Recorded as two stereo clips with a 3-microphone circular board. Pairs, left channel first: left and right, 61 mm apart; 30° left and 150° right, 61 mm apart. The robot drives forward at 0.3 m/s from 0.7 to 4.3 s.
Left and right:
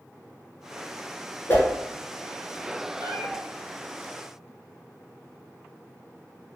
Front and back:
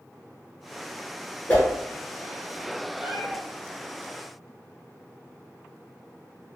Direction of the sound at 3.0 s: 70° right.